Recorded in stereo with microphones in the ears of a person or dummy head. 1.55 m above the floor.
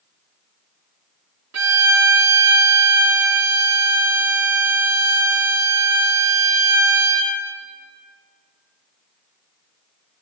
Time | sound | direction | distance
1.5 | a violin | 80° right | 1.0 m